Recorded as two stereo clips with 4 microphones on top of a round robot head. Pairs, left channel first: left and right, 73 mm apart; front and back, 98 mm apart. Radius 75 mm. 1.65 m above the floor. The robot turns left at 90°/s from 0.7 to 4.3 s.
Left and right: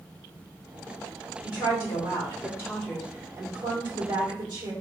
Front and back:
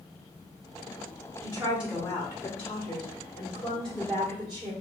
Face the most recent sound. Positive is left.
turn(degrees=-120)